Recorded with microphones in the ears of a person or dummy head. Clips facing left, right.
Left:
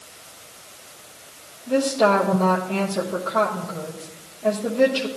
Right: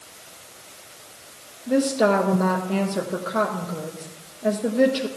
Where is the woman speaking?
15° right (ahead or behind), 1.0 m.